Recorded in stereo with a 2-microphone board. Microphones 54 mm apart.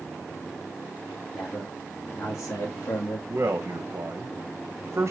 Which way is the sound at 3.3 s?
55° right (ahead or behind).